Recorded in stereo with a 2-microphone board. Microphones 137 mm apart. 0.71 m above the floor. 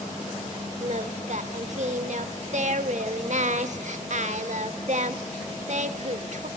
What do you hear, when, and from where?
0.8 s singing: 60° right (ahead or behind), 1.1 m